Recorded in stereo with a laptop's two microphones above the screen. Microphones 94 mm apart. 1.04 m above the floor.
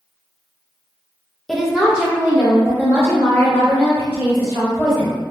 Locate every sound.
1.5 s a woman speaking: centre (ahead or behind), 0.7 m; by 5.2 s 25° right (ahead or behind), 3 m